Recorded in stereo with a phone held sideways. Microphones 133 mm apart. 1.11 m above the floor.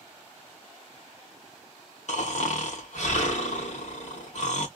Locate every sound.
2.1 s snoring: 65° left (ahead or behind), 1.9 m